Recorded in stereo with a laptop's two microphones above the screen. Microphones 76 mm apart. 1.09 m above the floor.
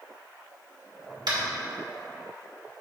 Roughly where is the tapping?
Right.